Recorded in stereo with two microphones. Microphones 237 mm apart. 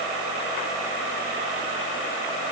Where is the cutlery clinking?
I don't hear cutlery clinking.